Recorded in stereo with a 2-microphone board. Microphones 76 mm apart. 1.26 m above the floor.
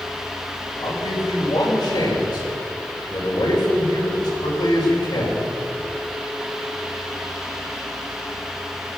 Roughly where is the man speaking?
Left.